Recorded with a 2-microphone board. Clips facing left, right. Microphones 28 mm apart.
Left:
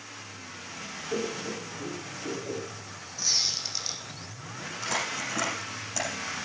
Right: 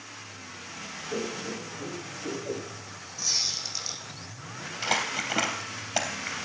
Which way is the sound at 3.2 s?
15° left (ahead or behind).